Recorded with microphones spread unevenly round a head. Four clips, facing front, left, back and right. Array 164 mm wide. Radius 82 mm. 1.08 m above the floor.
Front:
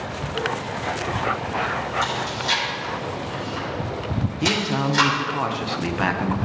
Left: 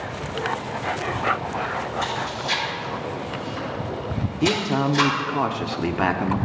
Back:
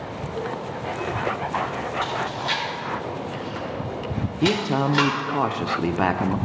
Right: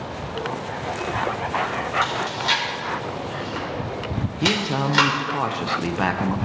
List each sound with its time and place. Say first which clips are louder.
2.0 s chewing: right 2 dB, front 1 dB; 85° right, 4.5 m
4.4 s a man speaking: left 2 dB, back 3 dB; 175° left, 0.6 m